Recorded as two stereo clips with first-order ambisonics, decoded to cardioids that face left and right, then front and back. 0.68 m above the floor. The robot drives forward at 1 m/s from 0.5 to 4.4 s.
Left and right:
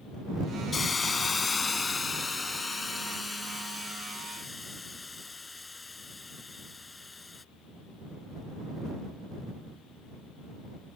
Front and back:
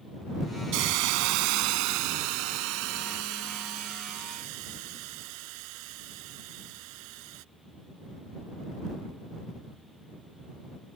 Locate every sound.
0.7 s a hiss: 160° left; by 7.4 s 170° left